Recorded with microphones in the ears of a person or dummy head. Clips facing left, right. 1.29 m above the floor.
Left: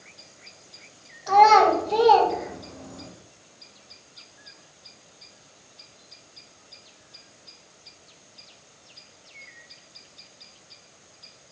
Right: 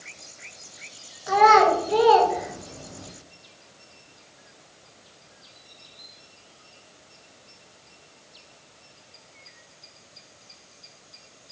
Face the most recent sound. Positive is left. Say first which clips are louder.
# left 1 dB
turn(degrees=-15)  # may be behind; listen again after turning